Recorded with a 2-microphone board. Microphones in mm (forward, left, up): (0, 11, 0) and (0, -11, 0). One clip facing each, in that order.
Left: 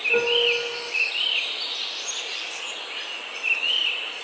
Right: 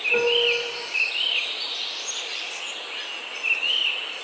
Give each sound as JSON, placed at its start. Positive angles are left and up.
{"t": 0.1, "sound": "a piano", "side_deg": 0, "distance_m": 4.0}